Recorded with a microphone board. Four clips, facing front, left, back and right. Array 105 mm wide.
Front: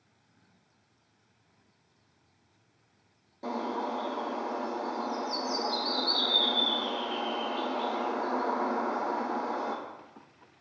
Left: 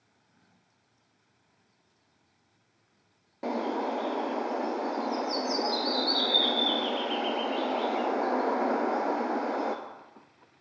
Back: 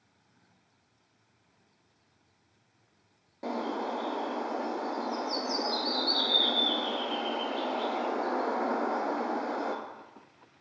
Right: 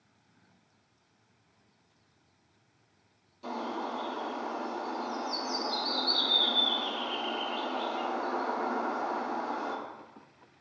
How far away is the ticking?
I don't hear ticking.